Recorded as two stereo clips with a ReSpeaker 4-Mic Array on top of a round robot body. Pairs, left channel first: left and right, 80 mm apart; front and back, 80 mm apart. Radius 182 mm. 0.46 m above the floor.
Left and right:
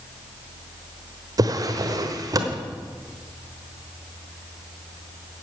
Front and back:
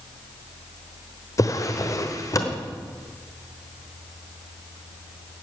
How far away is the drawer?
About 1.2 m.